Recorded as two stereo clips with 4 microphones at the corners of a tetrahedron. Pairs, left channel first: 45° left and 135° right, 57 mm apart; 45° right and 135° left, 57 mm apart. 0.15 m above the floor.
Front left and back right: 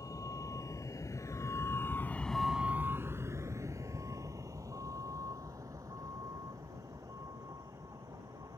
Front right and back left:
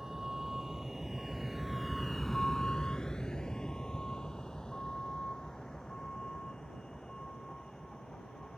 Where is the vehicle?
50° left; by 8.6 s 125° right.